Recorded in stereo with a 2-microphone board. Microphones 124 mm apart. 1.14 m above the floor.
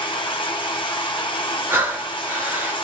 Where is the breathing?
15° right (ahead or behind), 1.0 m.